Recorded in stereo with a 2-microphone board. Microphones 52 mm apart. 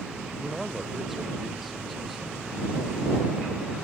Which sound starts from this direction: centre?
A man speaking, at 0.4 s.